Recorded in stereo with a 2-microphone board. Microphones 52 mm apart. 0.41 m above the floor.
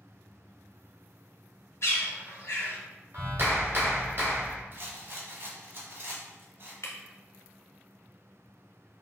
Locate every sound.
1.8 s a bird: 65° left (ahead or behind), 1.1 m
3.1 s a clap: 55° right (ahead or behind), 1.4 m
4.7 s a rattle: 50° right (ahead or behind), 1.0 m
6.8 s breaking glass: 80° left, 1.1 m